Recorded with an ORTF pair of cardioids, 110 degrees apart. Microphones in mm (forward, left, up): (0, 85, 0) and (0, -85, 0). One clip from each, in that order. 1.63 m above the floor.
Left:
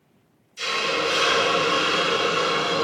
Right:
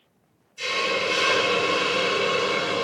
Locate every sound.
0.6 s a hiss: 70° left, 1.8 m